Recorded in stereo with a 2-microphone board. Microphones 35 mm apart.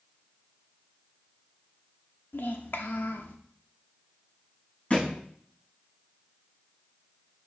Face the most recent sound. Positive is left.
turn(degrees=35)  # may be behind; listen again after turning